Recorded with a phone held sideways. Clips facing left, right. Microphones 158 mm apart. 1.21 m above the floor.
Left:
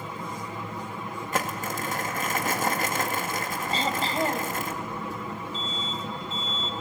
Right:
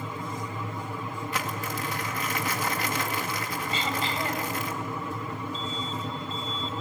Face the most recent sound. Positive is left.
turn(degrees=70)  # may be behind; listen again after turning